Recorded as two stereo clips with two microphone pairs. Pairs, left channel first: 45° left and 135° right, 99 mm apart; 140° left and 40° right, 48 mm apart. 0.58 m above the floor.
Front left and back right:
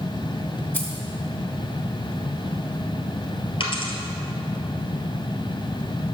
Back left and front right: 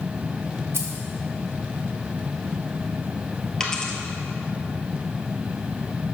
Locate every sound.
0.7 s keys jangling: 25° right, 1.5 m
3.6 s a dropped coin: 65° left, 1.4 m